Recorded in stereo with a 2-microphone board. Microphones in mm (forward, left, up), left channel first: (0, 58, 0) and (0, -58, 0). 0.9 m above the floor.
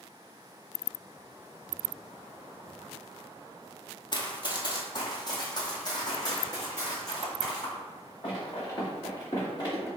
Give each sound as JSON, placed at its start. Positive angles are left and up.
{"t": 4.1, "sound": "running footsteps", "side_deg": 40, "distance_m": 1.3}